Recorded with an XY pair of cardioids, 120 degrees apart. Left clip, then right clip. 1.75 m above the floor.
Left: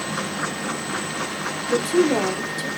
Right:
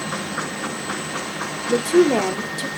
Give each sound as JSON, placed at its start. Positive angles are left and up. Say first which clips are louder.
{"t": 1.7, "sound": "a woman speaking", "louder": "right 3 dB", "azimuth_deg": -20, "distance_m": 0.7}